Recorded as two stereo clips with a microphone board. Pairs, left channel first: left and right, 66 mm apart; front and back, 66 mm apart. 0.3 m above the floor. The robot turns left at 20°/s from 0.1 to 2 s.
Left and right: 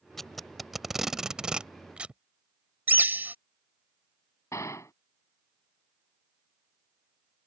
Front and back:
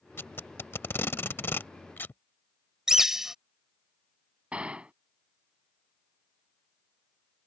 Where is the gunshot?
110° left.